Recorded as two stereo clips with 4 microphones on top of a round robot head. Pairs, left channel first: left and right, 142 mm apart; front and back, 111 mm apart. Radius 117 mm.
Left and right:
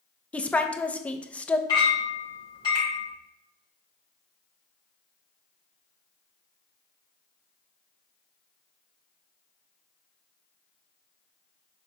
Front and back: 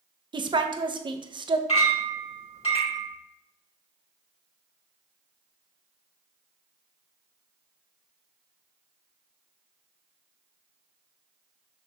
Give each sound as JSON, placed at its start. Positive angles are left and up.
{"t": 0.3, "sound": "a woman speaking", "azimuth_deg": 170, "distance_m": 0.6}
{"t": 1.7, "sound": "a clink", "azimuth_deg": 25, "distance_m": 2.5}